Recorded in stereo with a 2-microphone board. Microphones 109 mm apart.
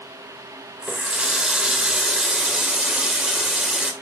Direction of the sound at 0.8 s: 5° right (ahead or behind).